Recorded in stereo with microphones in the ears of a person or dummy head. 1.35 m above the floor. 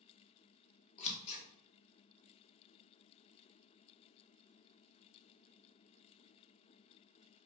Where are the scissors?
35° left (ahead or behind), 0.7 m.